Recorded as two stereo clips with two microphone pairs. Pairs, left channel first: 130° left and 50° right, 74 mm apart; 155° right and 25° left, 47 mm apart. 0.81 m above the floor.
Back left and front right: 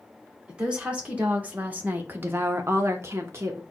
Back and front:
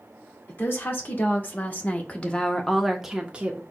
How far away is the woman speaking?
About 1.4 m.